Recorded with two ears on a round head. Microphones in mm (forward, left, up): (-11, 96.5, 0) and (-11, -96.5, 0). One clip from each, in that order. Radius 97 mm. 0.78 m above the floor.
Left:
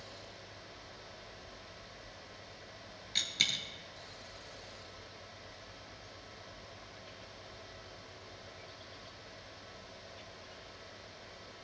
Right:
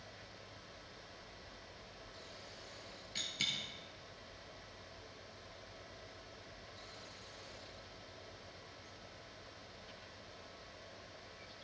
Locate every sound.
3.1 s a dropped coin: 30° left (ahead or behind), 1.0 m